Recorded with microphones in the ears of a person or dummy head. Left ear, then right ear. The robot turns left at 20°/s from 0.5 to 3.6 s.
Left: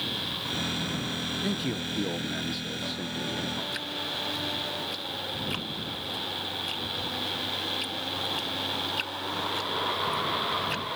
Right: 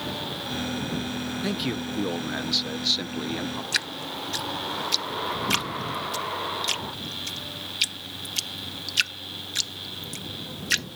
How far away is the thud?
No thud in this recording.